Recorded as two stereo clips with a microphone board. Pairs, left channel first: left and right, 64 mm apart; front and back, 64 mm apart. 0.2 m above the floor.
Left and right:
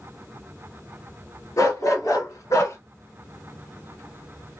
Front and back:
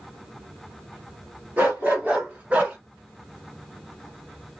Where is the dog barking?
115° left, 1.8 m; by 2.8 s 110° left, 0.9 m.